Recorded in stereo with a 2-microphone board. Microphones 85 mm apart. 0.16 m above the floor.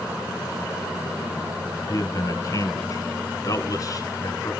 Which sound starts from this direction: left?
A man speaking, at 1.9 s.